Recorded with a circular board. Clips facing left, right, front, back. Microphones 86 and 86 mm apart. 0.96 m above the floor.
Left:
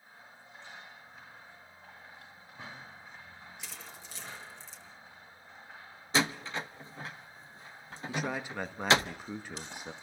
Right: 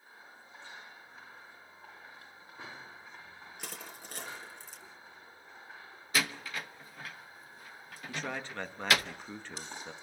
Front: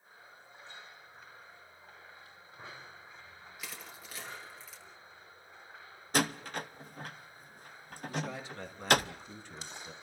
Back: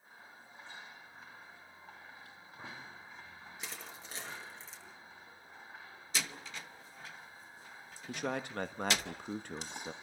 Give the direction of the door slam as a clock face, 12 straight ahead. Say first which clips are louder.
Left 4 dB, front 10 dB; 11 o'clock.